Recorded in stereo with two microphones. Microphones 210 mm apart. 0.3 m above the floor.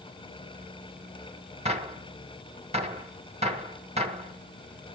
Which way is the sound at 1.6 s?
30° right (ahead or behind).